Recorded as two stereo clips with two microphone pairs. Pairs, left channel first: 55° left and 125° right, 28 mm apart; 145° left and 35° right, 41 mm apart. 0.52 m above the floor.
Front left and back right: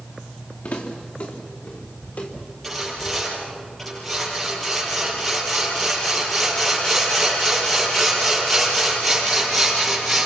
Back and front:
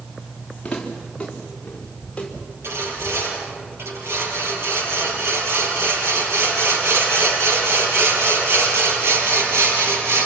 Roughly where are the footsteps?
Left.